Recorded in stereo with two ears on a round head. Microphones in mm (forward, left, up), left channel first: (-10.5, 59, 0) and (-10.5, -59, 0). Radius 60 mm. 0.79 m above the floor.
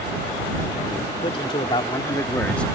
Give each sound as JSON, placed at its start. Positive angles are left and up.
{"t": 1.2, "sound": "a man speaking", "side_deg": 40}